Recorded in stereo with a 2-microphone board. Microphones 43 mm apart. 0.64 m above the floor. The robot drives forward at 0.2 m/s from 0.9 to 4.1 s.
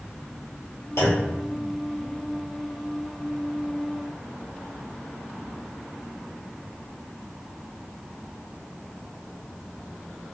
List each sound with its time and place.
1.0 s a clunk: 80° left, 1.2 m; by 1.4 s 75° left (ahead or behind), 1.2 m